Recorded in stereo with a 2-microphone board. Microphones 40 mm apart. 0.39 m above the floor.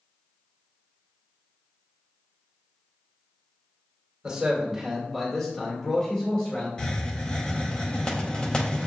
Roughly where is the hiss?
Left.